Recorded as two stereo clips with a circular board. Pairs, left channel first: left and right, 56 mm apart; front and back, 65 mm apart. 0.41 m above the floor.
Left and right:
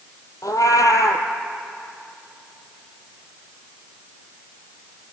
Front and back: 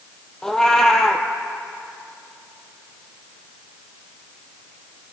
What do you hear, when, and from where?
0.4 s a cat meowing: 80° left, 2 m